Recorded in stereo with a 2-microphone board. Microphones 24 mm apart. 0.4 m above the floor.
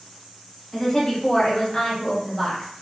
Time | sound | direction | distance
0.7 | a woman speaking | 30° left (ahead or behind) | 1.1 m